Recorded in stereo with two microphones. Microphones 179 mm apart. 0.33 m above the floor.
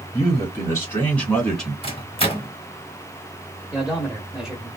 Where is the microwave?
30° left (ahead or behind), 0.8 m.